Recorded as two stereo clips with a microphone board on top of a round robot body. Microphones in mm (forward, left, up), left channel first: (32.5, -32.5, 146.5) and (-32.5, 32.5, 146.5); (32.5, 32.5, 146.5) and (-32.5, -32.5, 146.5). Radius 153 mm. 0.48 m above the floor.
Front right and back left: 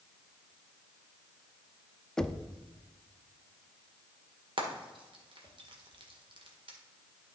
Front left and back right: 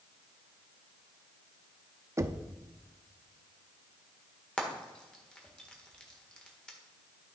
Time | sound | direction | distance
2.2 | knocking | 125° right | 0.7 m
4.6 | frying | 125° left | 1.7 m